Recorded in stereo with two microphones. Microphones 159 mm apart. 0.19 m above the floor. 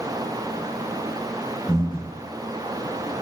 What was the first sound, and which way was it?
Breathing, 10° right (ahead or behind).